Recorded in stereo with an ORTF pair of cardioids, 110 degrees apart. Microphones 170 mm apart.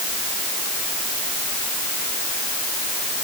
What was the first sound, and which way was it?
Only background noise.